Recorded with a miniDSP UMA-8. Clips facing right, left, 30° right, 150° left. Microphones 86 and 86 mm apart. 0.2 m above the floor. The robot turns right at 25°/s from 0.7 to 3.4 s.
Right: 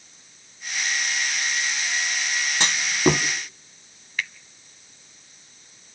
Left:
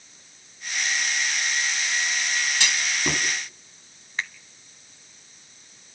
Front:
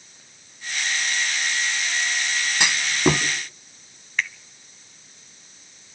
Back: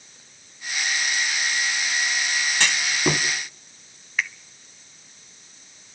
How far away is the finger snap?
About 0.9 m.